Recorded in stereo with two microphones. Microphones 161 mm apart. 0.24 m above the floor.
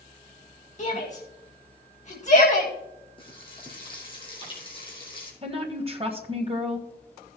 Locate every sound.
0.8 s a shout: 45° left (ahead or behind), 1.8 m
3.2 s frying: 30° left (ahead or behind), 3 m
5.4 s a woman speaking: 35° right (ahead or behind), 1.4 m